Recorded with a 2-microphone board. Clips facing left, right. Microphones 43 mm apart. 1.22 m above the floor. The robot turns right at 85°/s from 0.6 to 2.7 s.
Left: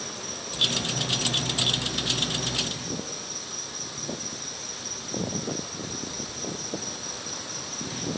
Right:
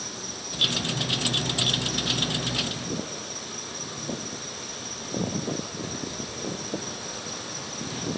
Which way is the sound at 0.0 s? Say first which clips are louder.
Left 1 dB; 50° left.